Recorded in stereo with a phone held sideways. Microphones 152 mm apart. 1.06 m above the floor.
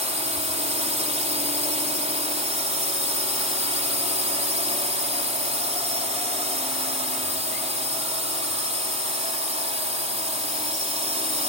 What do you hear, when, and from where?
0.0 s a drone: 45° right (ahead or behind)